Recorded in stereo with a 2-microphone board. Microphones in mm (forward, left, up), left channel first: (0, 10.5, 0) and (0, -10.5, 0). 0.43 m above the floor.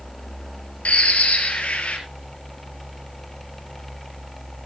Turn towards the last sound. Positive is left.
turn(degrees=90)